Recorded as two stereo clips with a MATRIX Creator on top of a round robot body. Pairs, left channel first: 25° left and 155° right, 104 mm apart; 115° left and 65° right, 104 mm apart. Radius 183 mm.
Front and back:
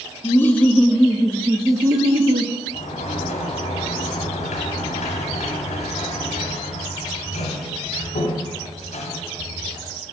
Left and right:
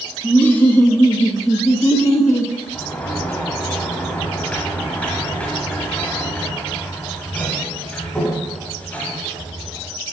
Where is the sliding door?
35° left, 0.8 m.